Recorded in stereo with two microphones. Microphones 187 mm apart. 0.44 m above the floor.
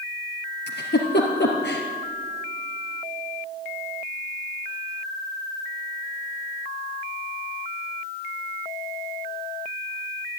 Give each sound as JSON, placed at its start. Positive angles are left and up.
{"t": 0.7, "sound": "a giggle", "side_deg": 70, "distance_m": 2.5}